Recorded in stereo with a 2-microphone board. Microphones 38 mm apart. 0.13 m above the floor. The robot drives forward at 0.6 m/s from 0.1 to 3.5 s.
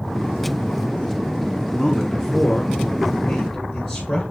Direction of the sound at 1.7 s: 5° left (ahead or behind).